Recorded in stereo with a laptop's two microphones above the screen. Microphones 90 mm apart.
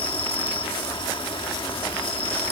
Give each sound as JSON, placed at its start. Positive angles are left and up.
{"t": 0.0, "sound": "an insect", "side_deg": 75}